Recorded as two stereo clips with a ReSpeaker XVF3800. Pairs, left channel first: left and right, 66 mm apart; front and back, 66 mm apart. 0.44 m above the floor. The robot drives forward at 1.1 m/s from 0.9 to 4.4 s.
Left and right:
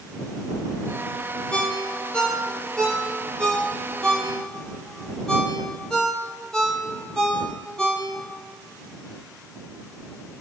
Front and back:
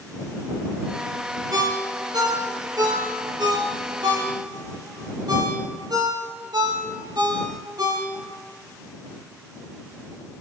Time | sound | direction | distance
1.5 | a ringtone | 165° left | 3 m